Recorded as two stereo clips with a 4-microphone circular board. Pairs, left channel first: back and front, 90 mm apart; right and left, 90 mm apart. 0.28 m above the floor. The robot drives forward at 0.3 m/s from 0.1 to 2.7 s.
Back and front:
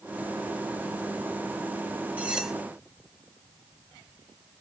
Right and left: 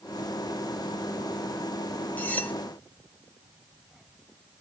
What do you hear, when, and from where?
2.2 s cutlery clinking: 50° right, 0.6 m; by 2.5 s 75° right, 0.6 m